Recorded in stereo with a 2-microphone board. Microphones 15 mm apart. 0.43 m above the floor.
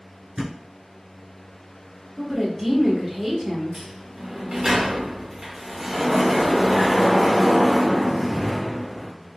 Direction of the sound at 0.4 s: 55° right (ahead or behind).